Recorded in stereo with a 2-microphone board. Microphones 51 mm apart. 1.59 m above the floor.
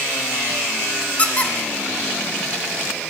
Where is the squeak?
25° left (ahead or behind), 1.7 m.